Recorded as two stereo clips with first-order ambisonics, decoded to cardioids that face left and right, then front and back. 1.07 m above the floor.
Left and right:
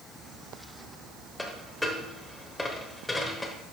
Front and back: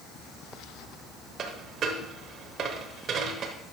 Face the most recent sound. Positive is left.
turn(degrees=170)